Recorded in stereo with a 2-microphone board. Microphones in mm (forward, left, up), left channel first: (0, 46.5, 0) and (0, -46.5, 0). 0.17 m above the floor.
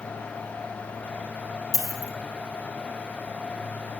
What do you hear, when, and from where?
1.7 s a dropped coin: 35° left (ahead or behind), 0.9 m